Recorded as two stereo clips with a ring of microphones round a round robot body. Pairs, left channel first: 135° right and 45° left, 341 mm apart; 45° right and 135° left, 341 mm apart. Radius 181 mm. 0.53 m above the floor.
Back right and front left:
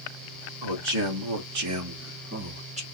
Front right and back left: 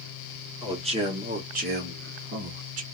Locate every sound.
0.6 s a man speaking: 60° left, 2.5 m; by 2.8 s 110° left, 1.2 m